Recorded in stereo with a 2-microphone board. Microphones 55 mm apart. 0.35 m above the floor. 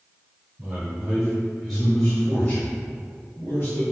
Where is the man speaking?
25° right (ahead or behind), 1.4 m; by 3.8 s 50° left (ahead or behind), 1.6 m.